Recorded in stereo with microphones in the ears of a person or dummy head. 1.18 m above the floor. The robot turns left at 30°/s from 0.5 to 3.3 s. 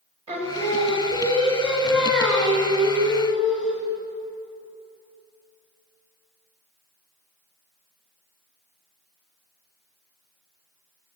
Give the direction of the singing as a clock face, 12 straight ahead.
5 o'clock.